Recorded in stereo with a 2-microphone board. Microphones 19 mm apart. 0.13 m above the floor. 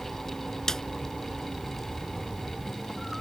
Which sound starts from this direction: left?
A snare drum, at 0.7 s.